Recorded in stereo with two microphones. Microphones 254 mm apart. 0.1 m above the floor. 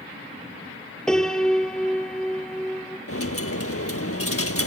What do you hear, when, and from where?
1.1 s a piano: 5° left (ahead or behind), 1.5 m
3.1 s a dropped coin: 65° left (ahead or behind), 1.0 m